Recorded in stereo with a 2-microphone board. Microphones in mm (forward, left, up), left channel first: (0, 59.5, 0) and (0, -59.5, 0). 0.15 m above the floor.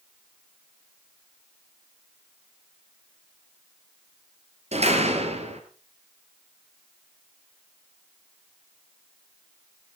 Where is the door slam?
65° right (ahead or behind), 2.5 m.